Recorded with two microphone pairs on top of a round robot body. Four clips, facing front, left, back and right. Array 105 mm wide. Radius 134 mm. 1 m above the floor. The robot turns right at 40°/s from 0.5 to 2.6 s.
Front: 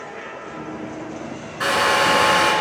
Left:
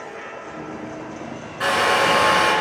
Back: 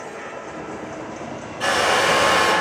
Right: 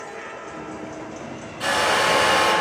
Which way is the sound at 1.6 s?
30° left.